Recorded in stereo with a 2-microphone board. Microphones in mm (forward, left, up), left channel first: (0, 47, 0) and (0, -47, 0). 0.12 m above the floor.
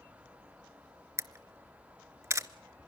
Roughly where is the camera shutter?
Right.